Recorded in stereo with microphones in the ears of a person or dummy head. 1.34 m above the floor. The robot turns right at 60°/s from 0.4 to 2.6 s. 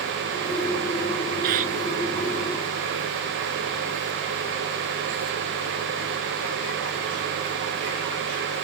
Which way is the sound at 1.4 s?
55° right (ahead or behind).